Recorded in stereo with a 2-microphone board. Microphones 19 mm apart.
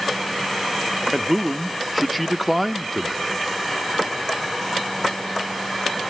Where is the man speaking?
5° left (ahead or behind), 0.6 m.